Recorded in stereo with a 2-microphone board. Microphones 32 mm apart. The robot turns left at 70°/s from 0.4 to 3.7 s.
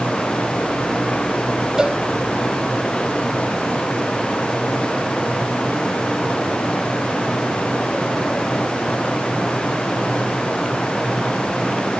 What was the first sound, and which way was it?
A cowbell, 15° right (ahead or behind).